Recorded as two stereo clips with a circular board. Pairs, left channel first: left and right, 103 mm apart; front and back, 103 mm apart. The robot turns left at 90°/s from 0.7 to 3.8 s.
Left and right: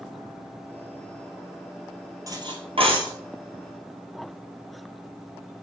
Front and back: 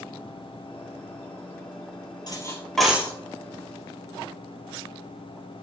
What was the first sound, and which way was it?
Cutlery clinking, 40° right.